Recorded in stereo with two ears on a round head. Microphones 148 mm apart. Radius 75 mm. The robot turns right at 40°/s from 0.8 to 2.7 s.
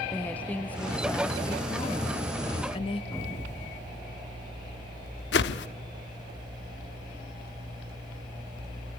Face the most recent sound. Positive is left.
turn(degrees=80)